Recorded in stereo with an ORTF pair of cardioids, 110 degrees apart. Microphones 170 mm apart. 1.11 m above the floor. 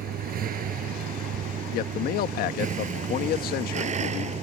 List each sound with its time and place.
0.0 s a vehicle: 60° right; by 4.4 s 40° right
1.7 s a man speaking: 65° left